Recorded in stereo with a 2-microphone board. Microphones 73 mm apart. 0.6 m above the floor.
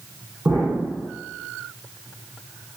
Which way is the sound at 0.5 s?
40° right (ahead or behind).